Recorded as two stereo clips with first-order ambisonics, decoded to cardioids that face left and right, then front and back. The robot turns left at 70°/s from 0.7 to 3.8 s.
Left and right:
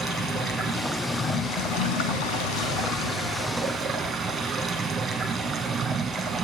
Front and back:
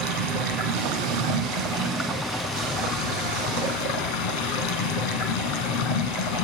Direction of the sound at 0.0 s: 160° right.